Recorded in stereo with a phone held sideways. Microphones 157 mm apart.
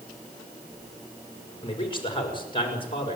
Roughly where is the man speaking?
Left.